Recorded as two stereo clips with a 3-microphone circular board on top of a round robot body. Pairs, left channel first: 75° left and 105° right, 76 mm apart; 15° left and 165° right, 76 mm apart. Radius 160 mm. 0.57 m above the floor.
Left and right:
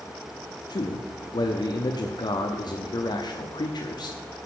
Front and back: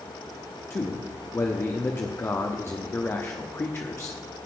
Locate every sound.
0.7 s a man speaking: 65° left, 1.2 m